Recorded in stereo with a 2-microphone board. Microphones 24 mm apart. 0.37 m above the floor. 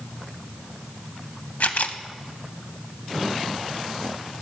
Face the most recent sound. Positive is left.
turn(degrees=65)  # may be behind; listen again after turning